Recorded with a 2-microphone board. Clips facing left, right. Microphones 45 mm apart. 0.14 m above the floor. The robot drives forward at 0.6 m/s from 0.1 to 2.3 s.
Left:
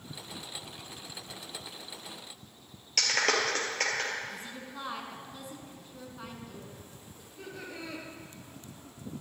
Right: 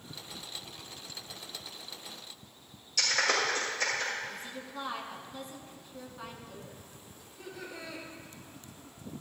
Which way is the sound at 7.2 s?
45° left (ahead or behind).